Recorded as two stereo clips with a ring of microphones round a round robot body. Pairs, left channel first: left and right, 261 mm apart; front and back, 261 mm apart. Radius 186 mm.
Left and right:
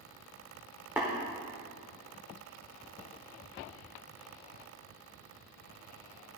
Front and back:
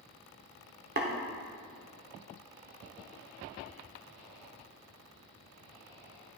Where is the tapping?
170° right, 1.0 m.